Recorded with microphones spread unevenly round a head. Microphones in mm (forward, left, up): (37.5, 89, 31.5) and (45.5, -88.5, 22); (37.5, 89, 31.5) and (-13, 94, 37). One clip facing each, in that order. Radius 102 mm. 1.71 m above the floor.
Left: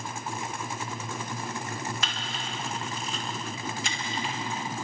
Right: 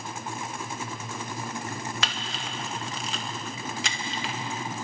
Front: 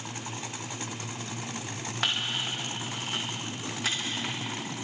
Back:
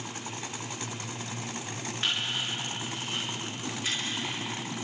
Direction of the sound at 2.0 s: 60° right.